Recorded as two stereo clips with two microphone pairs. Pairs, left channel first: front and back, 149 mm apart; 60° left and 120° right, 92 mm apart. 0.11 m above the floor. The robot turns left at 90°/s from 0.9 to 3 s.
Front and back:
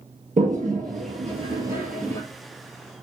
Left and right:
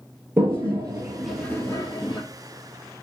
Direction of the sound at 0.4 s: 175° right.